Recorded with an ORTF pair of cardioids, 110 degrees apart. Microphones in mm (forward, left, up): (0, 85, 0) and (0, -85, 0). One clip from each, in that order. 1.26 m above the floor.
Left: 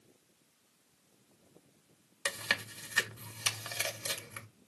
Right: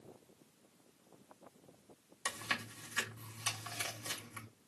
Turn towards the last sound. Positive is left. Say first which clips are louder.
# left 5 dB
turn(degrees=40)